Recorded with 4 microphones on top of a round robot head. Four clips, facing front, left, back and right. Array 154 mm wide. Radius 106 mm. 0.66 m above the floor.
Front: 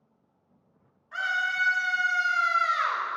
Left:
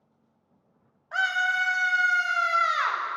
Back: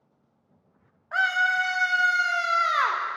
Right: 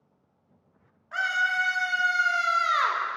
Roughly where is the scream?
Behind.